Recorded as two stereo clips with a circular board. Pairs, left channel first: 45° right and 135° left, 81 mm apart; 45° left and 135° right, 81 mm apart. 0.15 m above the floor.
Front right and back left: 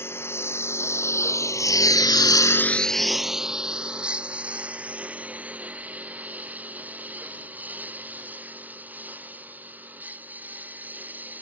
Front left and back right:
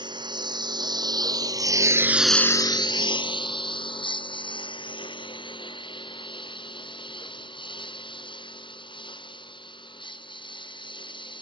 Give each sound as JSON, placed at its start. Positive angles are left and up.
{"t": 0.0, "sound": "a lawn mower", "azimuth_deg": -110}